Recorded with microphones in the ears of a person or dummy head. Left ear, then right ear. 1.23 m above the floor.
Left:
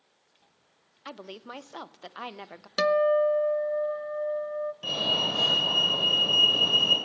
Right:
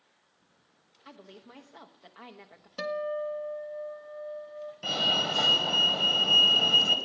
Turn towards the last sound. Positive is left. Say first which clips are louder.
# right 1 dB
turn(degrees=-40)  # may be behind; listen again after turning